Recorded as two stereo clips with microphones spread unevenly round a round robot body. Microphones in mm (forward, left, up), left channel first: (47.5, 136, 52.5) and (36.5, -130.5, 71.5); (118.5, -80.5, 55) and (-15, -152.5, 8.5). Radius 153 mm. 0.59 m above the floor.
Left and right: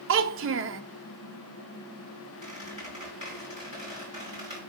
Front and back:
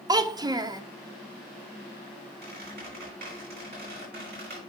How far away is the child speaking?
About 0.7 m.